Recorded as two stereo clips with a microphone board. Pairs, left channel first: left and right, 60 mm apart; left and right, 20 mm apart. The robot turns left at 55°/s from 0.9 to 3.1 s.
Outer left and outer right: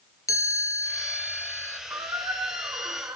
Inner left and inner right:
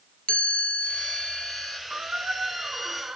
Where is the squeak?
65° right, 2.5 m; by 3.2 s 130° right, 2.5 m.